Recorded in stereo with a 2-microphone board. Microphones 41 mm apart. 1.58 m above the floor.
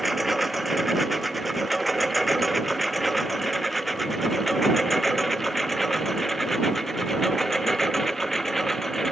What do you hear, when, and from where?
0.0 s a lawn mower: 5° right (ahead or behind); by 9.1 s 5° left (ahead or behind)